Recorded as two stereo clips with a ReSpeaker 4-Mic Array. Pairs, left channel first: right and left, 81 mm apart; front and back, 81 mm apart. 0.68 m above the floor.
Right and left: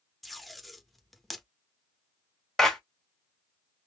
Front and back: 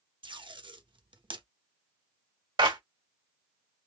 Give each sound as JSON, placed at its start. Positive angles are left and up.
{"t": 0.2, "sound": "tape being pulled", "azimuth_deg": 180, "distance_m": 0.7}
{"t": 2.6, "sound": "a clap", "azimuth_deg": 180, "distance_m": 1.6}